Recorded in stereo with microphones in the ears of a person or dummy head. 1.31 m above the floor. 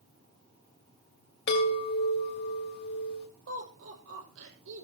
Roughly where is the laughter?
Right.